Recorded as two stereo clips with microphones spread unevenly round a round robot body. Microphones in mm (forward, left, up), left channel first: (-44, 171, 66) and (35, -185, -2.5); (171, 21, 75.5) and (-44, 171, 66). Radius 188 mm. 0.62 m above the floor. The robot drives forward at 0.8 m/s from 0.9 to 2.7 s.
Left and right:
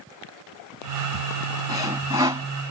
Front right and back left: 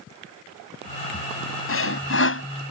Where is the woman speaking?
No woman speaking in this recording.